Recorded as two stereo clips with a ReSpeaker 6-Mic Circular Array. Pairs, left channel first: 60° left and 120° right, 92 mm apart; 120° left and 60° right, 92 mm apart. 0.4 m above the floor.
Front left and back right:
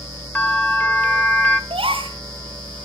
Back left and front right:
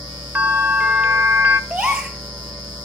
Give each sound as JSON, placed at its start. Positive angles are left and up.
{"t": 0.3, "sound": "a bell", "azimuth_deg": 0, "distance_m": 1.1}
{"t": 1.7, "sound": "a gasp", "azimuth_deg": -140, "distance_m": 2.5}